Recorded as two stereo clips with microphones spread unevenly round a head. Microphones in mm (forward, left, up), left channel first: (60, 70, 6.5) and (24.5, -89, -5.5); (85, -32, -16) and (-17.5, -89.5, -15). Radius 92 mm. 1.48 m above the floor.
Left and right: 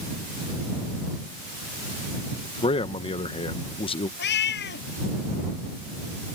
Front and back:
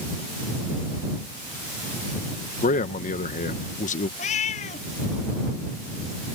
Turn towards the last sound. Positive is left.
turn(degrees=70)